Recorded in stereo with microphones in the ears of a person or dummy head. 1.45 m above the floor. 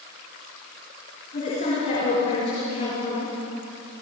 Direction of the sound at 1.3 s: 35° left (ahead or behind).